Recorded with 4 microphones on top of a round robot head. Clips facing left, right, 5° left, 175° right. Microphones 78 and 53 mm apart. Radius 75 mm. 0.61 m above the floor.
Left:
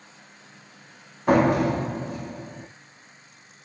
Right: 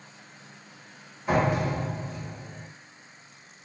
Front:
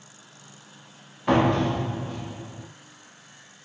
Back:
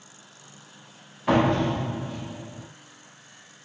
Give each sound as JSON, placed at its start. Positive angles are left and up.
{"t": 1.3, "sound": "a door slam", "azimuth_deg": 95, "distance_m": 0.9}